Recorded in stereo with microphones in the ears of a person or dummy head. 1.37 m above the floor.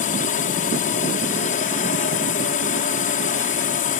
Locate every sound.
0.0 s a drone: 40° left (ahead or behind)